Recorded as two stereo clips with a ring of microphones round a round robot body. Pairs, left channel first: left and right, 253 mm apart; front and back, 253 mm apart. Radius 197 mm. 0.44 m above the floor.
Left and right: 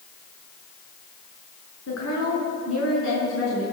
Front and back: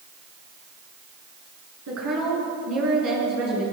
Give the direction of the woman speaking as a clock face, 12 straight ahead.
7 o'clock.